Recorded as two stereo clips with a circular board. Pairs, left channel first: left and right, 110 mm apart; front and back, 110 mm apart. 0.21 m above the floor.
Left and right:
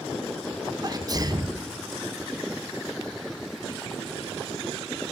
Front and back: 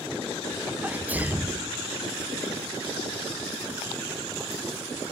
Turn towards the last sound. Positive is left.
turn(degrees=-115)